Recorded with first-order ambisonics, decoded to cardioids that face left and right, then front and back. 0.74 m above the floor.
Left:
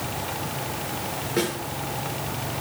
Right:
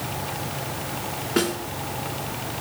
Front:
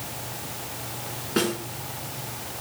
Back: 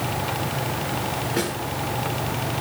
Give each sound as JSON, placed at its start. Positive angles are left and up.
{"t": 1.4, "sound": "a snare drum", "azimuth_deg": -60, "distance_m": 4.5}